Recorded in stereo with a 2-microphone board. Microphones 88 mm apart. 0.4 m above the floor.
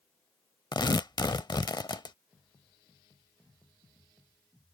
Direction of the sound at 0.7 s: 55° left (ahead or behind).